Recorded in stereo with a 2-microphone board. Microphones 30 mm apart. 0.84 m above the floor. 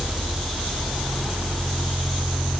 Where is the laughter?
I don't hear laughter.